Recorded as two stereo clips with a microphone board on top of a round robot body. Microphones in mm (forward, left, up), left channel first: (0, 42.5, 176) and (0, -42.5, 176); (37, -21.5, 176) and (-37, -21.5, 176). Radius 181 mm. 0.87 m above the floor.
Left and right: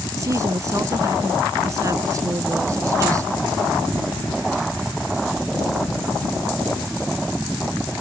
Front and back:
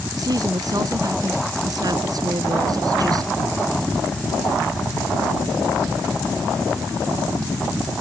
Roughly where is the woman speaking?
Behind right.